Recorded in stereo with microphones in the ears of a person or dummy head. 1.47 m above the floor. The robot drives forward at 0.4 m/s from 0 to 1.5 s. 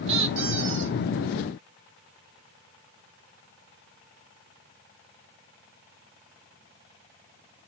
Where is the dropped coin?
No dropped coin in this recording.